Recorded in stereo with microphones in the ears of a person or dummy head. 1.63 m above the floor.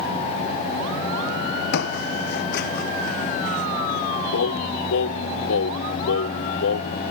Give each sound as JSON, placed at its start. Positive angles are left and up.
{"t": 1.7, "sound": "footsteps", "side_deg": 65}
{"t": 4.3, "sound": "singing", "side_deg": 65}